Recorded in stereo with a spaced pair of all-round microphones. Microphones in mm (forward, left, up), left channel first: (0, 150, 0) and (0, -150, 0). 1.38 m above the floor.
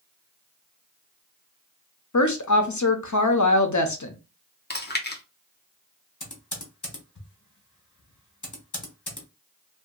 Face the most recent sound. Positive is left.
turn(degrees=70)  # may be behind; listen again after turning